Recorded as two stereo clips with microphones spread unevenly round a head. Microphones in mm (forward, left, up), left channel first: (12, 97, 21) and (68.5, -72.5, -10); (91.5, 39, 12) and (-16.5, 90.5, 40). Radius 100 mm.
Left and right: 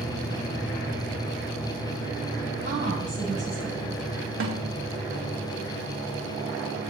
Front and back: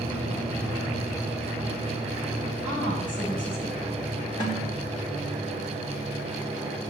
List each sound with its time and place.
2.6 s a woman speaking: 125° right, 8.5 m
4.4 s a snare drum: 90° right, 3 m